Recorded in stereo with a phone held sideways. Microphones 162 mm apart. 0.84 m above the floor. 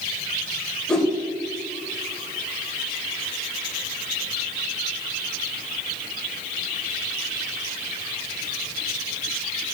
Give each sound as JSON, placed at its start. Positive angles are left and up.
{"t": 0.9, "sound": "a whoosh", "side_deg": 5, "distance_m": 1.6}